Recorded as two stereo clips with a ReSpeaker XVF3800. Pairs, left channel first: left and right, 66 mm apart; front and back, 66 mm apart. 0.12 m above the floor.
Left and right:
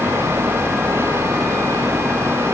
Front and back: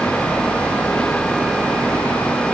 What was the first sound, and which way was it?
Only background noise.